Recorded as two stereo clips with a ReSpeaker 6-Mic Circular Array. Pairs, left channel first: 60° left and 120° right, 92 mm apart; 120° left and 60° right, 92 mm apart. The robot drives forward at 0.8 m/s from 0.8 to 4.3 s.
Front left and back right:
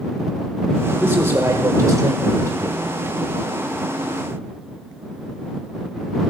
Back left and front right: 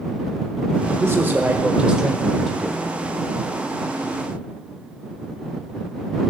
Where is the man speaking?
80° right, 1.3 m; by 2.8 s 155° right, 1.8 m.